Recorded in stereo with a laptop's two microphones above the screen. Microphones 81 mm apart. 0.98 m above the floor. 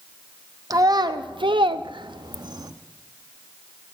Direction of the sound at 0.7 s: 45° right (ahead or behind).